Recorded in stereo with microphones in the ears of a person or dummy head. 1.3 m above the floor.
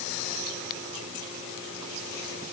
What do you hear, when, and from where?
Only background noise.